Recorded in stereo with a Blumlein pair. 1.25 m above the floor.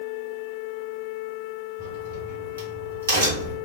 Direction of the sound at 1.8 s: 65° right.